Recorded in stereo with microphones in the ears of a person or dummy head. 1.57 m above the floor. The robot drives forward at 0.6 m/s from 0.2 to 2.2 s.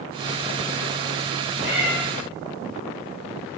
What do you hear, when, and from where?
1.6 s a cat meowing: 10° right (ahead or behind), 3.5 m; by 1.9 s 15° right (ahead or behind), 3 m